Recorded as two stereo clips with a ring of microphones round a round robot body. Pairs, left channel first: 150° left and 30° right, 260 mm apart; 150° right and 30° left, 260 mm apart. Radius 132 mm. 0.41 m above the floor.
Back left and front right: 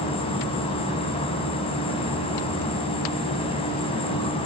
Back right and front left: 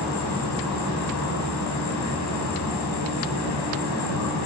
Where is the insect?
140° right, 5 m.